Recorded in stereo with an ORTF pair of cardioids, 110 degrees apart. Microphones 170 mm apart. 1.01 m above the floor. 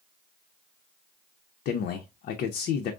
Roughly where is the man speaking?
Left.